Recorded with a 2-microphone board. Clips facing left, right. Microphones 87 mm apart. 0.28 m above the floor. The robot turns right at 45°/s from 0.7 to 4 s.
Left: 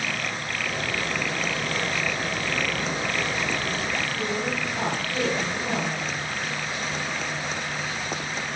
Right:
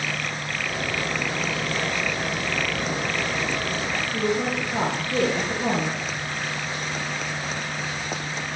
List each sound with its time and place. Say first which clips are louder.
4.1 s a woman speaking: right 4 dB; 55° right (ahead or behind), 9.5 m